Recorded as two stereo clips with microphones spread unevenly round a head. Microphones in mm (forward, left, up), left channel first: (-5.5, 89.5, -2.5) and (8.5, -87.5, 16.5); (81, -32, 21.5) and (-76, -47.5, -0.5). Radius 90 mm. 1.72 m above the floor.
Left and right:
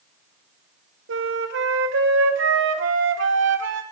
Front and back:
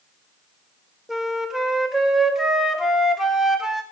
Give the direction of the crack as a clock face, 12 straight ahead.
No crack in this recording.